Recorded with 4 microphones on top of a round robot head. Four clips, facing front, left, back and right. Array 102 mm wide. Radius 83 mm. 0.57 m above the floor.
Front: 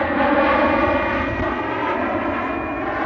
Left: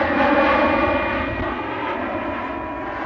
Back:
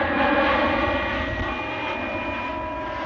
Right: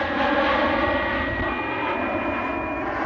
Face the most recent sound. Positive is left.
turn(degrees=-10)